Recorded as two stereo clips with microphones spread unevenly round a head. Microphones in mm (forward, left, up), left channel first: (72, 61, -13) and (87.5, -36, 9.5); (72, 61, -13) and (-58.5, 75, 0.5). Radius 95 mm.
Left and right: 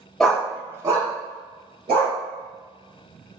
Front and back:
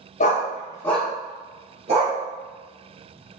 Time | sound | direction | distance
0.2 | a dog barking | 5° left | 0.7 m